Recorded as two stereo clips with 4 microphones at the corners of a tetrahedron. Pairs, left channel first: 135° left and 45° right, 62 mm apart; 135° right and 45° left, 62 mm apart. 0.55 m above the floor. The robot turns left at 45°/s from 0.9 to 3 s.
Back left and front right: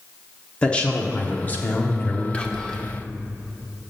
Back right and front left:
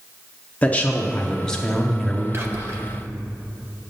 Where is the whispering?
75° left, 0.9 m; by 2.8 s 50° left, 0.9 m.